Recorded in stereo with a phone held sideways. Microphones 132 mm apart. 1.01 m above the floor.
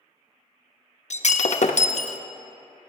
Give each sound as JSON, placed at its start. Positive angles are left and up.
{"t": 1.1, "sound": "breaking glass", "side_deg": 60, "distance_m": 0.5}